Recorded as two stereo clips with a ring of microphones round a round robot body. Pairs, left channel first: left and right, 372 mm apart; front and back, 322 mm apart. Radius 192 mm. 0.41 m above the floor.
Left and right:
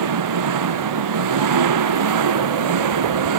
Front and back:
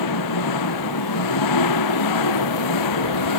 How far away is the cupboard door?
No cupboard door in this recording.